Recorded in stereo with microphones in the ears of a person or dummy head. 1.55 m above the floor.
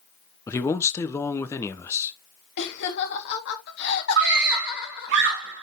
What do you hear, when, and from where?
0.5 s a man speaking: 15° left (ahead or behind), 1.2 m
2.6 s laughter: 60° left (ahead or behind), 3 m
4.2 s a scream: 65° right (ahead or behind), 2.5 m